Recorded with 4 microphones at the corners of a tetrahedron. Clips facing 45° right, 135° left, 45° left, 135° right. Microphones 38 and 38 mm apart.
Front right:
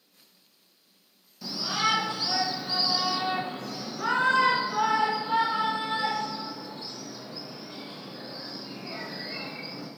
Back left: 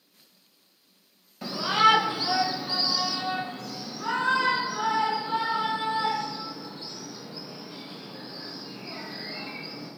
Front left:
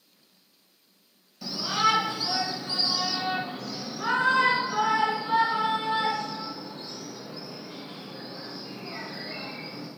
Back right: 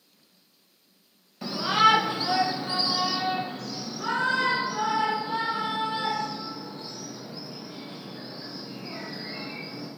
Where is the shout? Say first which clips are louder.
Back left 7 dB, back right 4 dB; straight behind, 0.9 m; by 9.9 s 15° right, 3.5 m.